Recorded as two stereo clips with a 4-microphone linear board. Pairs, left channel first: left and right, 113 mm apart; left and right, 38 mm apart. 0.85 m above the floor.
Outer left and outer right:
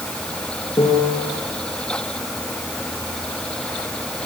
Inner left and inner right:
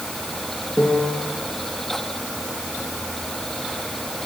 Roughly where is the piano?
Left.